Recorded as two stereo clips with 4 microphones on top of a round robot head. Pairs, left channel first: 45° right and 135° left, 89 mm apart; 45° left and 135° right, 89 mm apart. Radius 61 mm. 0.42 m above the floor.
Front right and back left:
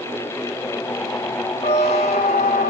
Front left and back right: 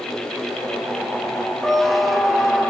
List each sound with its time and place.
1.6 s a squeak: 45° right, 1.4 m